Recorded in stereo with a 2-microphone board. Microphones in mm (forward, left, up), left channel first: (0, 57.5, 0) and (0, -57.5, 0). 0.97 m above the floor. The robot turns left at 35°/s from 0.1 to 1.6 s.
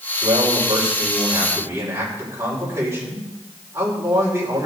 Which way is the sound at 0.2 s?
105° right.